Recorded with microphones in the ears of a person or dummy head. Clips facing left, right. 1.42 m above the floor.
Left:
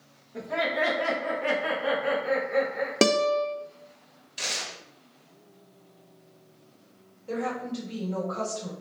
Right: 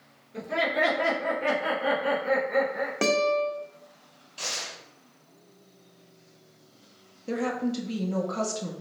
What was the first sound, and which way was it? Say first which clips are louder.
Laughter: right 1 dB; 45° right (ahead or behind).